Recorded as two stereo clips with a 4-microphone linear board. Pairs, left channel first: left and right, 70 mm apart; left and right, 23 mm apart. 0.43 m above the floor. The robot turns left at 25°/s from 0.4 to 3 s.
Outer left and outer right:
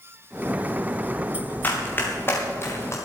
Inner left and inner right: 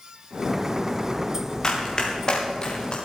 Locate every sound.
1.6 s running footsteps: 30° left (ahead or behind), 4 m; by 3.0 s 45° left (ahead or behind), 4.5 m